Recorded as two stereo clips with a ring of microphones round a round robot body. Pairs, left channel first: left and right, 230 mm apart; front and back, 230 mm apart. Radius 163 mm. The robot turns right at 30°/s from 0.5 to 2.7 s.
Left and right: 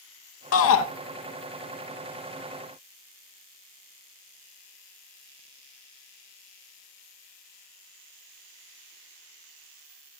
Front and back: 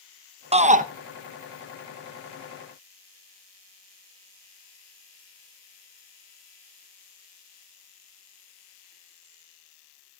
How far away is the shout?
About 0.8 m.